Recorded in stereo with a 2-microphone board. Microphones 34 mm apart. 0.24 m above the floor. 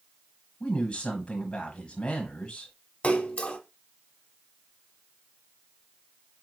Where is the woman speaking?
30° left (ahead or behind), 1.3 m.